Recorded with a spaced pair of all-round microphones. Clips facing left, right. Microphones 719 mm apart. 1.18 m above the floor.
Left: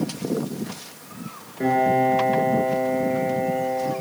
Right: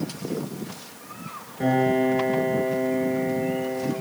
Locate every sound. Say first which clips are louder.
1.6 s a piano: even; 25° right (ahead or behind), 9 m